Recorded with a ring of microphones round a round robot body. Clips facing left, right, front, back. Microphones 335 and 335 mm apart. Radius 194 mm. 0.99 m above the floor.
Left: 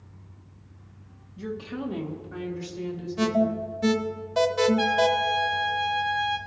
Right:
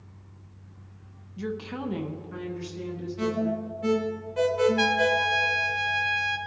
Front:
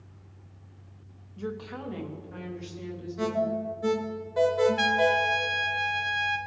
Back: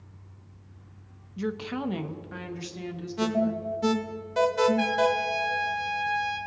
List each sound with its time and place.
1.4 s a woman speaking: 145° right, 0.7 m; by 3.6 s straight behind, 2 m
3.2 s an alarm: 130° left, 0.7 m
4.8 s a trumpet: 45° right, 0.6 m